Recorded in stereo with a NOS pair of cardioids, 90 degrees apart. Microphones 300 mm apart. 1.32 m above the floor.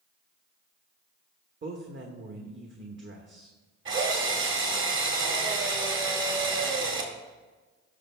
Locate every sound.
1.6 s a man speaking: 40° right, 1.4 m
3.9 s a drill: 40° right, 2 m